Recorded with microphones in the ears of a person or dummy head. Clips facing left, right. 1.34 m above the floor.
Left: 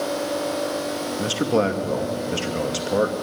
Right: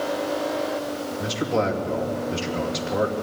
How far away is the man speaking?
About 2 m.